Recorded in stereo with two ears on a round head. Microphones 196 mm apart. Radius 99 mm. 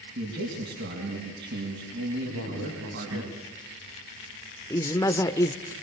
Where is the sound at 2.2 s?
70° right (ahead or behind), 4 m.